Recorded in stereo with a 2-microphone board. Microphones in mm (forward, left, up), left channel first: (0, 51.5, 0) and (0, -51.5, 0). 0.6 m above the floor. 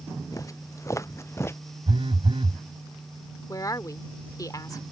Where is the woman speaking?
35° left (ahead or behind).